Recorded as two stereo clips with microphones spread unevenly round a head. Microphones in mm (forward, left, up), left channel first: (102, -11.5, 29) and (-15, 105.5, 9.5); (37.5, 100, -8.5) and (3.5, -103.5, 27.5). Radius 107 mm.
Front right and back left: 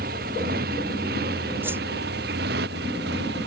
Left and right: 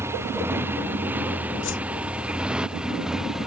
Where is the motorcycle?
Straight behind; by 3.5 s 175° left.